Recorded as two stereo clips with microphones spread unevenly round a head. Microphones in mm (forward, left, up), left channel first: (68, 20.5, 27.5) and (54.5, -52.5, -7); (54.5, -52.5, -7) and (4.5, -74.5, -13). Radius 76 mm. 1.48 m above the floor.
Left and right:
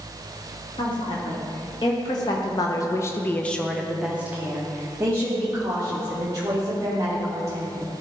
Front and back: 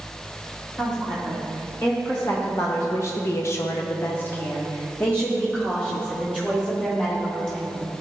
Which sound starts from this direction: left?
A woman speaking, at 0.8 s.